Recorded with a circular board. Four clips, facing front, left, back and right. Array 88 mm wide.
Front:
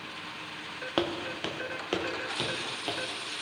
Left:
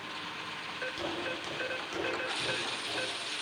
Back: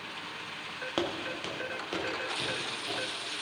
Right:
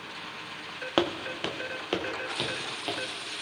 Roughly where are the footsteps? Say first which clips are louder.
Right 11 dB, front 3 dB; right.